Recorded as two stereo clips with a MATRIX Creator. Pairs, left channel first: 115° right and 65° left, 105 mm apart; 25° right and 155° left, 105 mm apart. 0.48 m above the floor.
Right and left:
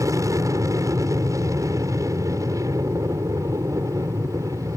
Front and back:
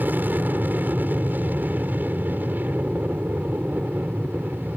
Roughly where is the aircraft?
Left.